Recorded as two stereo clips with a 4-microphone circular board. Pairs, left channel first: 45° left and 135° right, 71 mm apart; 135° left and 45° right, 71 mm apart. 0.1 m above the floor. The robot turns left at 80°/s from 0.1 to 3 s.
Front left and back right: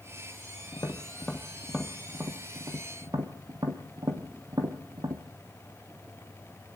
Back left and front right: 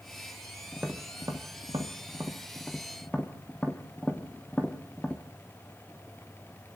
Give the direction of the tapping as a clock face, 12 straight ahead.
11 o'clock.